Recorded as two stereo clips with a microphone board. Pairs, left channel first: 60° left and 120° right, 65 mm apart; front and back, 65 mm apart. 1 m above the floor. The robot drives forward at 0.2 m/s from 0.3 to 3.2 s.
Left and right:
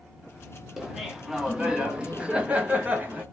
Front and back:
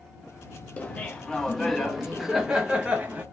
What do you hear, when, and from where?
0.8 s laughter: 35° right, 0.7 m; by 3.2 s 145° right, 0.7 m